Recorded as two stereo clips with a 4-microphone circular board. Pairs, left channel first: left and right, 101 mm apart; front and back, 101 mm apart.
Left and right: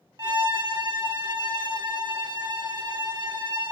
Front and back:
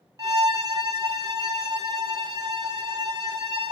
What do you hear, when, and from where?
0.2 s a violin: 130° right, 0.8 m